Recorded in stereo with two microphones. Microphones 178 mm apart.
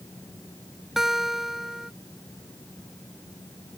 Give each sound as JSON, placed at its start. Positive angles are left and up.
{"t": 1.0, "sound": "a guitar", "side_deg": 0}